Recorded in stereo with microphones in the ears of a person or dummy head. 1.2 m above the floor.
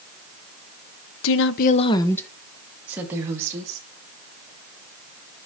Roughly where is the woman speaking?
Left.